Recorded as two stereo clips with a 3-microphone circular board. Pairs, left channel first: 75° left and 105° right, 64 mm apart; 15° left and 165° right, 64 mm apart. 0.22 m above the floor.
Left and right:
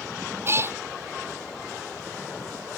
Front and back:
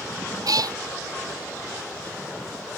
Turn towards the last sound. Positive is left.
turn(degrees=-155)